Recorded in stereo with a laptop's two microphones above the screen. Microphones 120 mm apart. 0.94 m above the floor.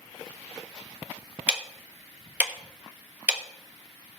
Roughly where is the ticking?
Centre.